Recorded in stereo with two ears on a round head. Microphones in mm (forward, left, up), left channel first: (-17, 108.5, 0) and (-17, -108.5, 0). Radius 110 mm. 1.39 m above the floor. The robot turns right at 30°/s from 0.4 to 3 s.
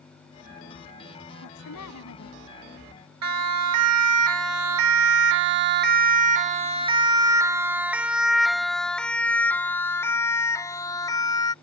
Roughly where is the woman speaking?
Left.